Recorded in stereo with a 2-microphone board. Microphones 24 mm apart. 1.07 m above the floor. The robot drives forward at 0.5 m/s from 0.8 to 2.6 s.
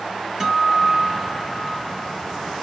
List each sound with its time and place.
0.4 s a guitar: 20° right (ahead or behind), 1.4 m; by 2.5 s 30° right (ahead or behind), 1.0 m